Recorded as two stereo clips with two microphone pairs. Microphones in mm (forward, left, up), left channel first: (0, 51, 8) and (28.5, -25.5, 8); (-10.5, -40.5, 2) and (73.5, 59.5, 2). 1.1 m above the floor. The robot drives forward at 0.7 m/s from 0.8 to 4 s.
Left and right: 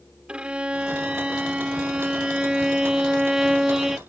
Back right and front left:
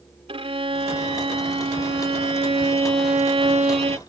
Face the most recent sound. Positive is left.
turn(degrees=15)